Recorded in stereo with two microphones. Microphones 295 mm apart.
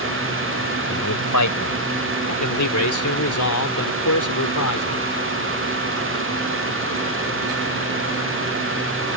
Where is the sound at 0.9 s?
80° left.